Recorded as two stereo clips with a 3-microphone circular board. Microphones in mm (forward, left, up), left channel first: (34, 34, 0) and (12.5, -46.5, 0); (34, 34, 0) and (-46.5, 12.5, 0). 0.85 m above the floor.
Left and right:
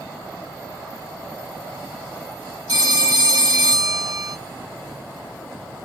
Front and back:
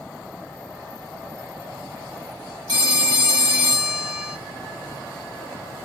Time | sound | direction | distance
2.7 | a phone ringing | 135° right | 1.4 m